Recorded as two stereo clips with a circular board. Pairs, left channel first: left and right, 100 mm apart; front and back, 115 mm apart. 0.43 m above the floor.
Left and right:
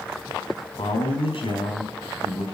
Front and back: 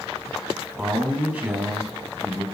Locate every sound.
0.8 s a man speaking: 105° left, 3 m